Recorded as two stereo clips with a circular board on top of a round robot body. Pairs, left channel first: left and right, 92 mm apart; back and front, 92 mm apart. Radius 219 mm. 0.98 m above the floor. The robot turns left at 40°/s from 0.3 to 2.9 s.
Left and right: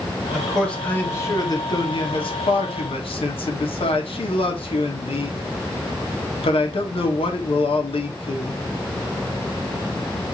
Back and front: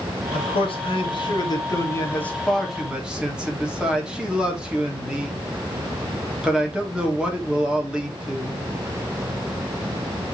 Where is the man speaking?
175° right, 3.5 m; by 8.6 s 80° left, 3.5 m.